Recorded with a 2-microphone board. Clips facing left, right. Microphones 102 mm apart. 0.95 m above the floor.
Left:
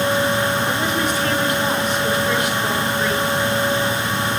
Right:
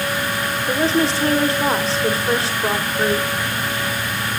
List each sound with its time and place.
0.7 s a woman speaking: 35° right (ahead or behind), 4.5 m